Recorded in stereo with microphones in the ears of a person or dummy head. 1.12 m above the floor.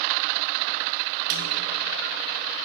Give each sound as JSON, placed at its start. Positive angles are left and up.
{"t": 1.3, "sound": "a snare drum", "side_deg": -55, "distance_m": 1.1}